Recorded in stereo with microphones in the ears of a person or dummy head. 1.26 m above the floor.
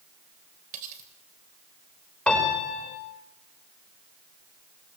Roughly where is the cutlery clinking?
Right.